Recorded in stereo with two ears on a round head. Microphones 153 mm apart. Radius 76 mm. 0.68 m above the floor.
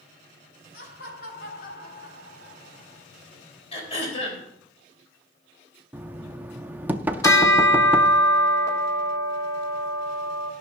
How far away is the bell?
About 1.8 m.